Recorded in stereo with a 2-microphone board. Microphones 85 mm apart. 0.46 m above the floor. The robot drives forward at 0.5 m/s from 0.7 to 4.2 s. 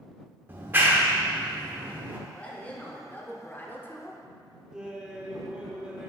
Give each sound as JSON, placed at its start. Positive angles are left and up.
{"t": 0.5, "sound": "a clap", "side_deg": -25, "distance_m": 0.8}
{"t": 2.3, "sound": "a woman speaking", "side_deg": 15, "distance_m": 1.2}
{"t": 4.7, "sound": "laughter", "side_deg": -10, "distance_m": 0.9}